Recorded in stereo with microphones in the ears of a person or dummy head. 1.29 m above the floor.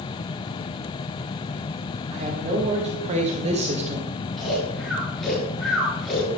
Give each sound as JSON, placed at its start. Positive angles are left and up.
{"t": 2.1, "sound": "a woman speaking", "side_deg": -35, "distance_m": 3.5}
{"t": 4.4, "sound": "snoring", "side_deg": 0, "distance_m": 5.0}